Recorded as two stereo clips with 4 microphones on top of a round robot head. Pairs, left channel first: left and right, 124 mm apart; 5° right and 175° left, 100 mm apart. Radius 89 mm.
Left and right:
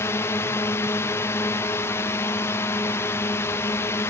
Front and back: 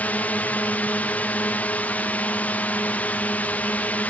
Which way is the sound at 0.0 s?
50° left.